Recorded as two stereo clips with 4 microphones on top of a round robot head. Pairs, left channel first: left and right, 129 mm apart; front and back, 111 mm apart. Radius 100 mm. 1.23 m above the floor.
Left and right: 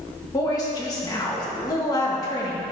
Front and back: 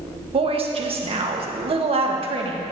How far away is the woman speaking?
About 1.4 m.